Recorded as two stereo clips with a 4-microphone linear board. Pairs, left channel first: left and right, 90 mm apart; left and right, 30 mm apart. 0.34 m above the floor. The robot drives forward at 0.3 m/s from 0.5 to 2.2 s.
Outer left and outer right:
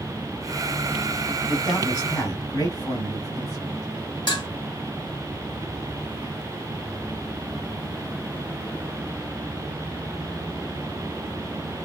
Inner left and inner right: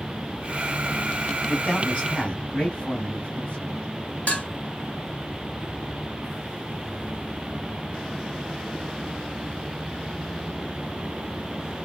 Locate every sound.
1.5 s a man speaking: 45° left (ahead or behind), 1.7 m
4.3 s dishes clattering: 55° left (ahead or behind), 1.4 m